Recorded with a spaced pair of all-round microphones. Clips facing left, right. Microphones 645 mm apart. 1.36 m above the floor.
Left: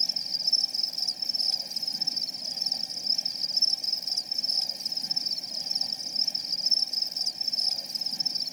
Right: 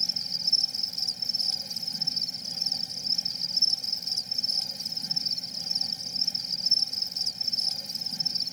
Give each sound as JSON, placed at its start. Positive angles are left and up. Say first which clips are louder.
{"t": 0.0, "sound": "an insect", "louder": "right 2 dB", "side_deg": -40}